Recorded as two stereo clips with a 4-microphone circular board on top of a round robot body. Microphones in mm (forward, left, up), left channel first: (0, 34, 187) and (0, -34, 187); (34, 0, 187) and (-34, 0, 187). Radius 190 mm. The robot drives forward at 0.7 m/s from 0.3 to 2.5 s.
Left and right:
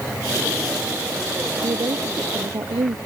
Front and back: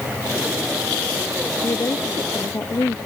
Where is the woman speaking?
55° right.